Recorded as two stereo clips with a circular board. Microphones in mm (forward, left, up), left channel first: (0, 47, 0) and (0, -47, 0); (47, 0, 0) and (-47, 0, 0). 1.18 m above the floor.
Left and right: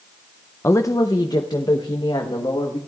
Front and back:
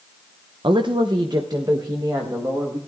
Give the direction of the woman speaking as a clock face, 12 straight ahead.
7 o'clock.